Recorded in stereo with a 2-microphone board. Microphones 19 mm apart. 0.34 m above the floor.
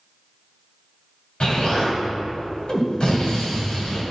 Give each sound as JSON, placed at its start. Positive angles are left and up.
{"t": 1.4, "sound": "an explosion", "side_deg": 55, "distance_m": 2.0}